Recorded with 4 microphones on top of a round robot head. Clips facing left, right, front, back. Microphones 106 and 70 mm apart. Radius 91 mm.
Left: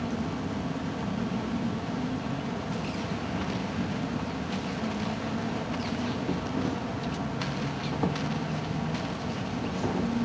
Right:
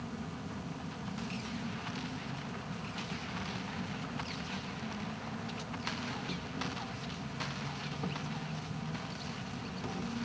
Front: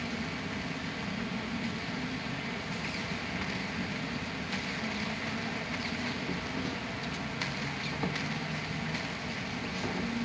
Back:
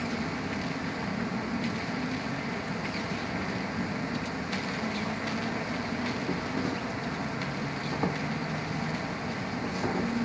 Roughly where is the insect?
Behind left.